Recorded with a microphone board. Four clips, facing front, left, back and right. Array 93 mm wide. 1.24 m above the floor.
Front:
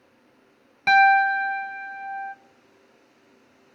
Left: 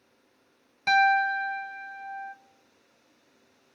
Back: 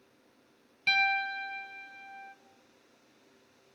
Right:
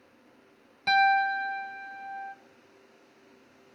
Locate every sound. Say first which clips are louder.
0.9 s a piano: left 1 dB, front 15 dB; 5° left, 0.8 m